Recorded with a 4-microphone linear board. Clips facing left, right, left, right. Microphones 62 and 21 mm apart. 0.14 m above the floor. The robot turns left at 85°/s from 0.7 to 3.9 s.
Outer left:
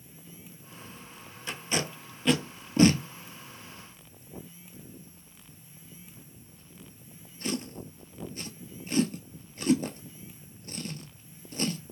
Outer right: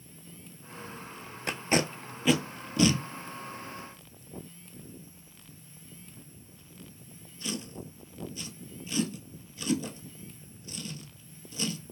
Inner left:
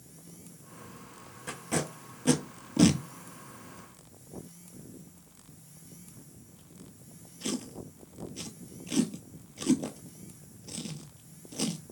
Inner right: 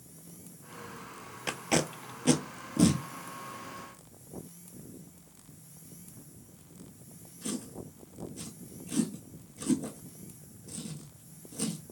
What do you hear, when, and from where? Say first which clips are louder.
1.5 s tape being pulled: outer right 4 dB, inner right 4 dB; 70° right (ahead or behind), 0.5 m; by 11.8 s 45° left (ahead or behind), 0.5 m